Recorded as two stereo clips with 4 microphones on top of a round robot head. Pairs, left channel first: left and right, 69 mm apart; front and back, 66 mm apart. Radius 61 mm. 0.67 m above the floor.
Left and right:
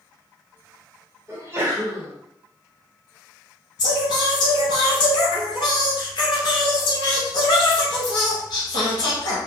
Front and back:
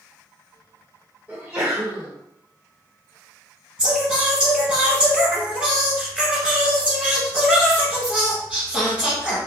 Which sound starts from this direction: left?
Singing, at 3.8 s.